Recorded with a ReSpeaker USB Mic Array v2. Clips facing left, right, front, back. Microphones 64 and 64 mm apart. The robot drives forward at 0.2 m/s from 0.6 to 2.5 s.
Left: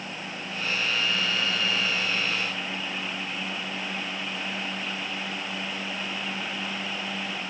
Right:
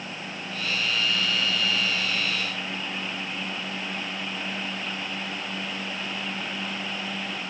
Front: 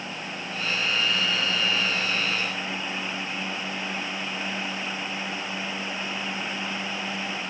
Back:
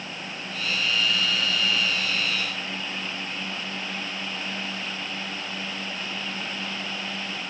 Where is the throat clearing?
I don't hear throat clearing.